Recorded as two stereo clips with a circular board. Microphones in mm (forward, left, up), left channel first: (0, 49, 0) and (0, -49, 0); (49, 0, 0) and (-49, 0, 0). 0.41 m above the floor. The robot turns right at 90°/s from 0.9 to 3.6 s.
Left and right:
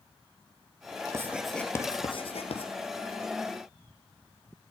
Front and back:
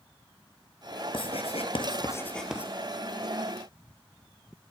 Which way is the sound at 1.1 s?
30° right.